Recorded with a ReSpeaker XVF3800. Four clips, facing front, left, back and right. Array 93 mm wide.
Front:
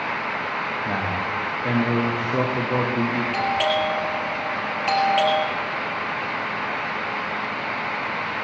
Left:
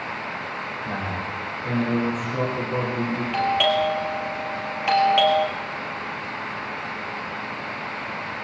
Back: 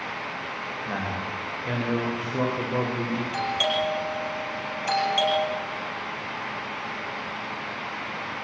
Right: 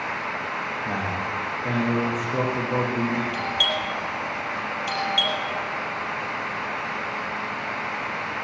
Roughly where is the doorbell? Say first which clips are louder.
Left 6 dB, front 4 dB; ahead left.